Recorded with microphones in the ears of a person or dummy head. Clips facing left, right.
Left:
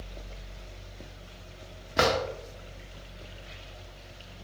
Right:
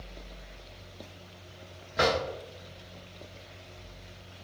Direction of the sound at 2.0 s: 65° left (ahead or behind).